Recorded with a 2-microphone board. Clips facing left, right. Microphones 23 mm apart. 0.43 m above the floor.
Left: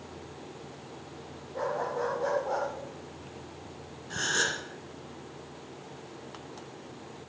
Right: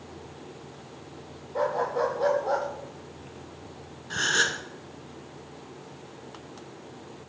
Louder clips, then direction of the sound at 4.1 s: Right 4 dB; 20° right (ahead or behind).